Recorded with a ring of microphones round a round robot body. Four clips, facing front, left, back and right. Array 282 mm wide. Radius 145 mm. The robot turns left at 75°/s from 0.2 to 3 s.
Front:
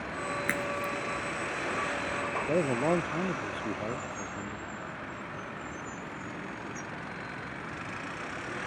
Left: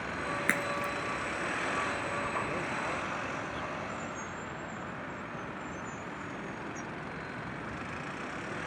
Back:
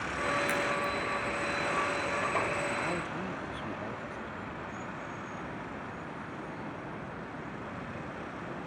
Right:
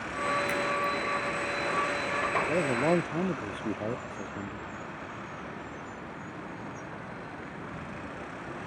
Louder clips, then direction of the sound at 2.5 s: Right 9 dB, front 6 dB; 25° right.